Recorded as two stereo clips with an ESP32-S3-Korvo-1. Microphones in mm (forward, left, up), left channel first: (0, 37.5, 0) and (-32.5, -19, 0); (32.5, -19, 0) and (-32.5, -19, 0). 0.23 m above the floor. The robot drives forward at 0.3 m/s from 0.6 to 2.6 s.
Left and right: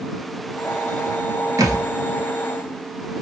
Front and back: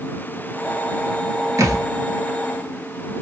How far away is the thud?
About 0.8 m.